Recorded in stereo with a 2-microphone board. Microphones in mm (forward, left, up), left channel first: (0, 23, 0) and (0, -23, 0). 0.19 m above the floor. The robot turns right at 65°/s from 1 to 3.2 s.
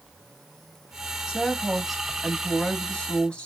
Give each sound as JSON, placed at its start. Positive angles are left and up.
{"t": 1.3, "sound": "a woman speaking", "side_deg": -15, "distance_m": 1.0}